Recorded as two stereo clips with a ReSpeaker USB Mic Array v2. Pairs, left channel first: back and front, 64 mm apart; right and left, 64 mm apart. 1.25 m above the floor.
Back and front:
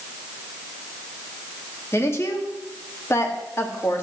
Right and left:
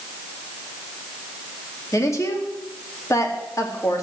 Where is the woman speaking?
130° right, 2 m.